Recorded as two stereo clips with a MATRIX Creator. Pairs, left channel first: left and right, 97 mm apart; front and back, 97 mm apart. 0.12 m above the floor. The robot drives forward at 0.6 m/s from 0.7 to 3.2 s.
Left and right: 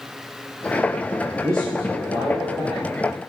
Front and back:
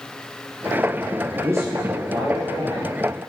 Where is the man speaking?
130° right, 2.5 m; by 2.8 s 145° right, 3 m.